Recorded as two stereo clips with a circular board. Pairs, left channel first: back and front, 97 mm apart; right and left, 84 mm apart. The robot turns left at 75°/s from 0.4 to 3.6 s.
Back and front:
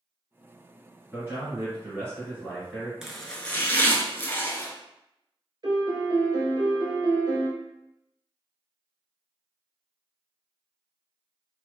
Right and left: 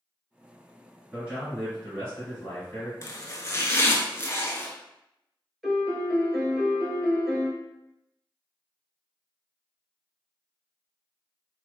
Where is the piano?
Straight ahead, 0.7 m.